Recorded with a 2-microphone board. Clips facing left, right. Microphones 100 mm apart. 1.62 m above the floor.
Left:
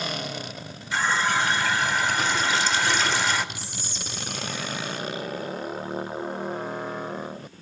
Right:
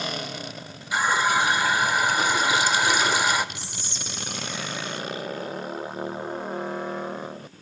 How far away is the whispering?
About 3 m.